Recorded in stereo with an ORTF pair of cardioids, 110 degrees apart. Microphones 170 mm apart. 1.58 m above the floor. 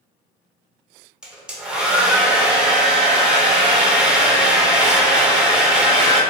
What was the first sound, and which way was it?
A hair dryer, 5° right.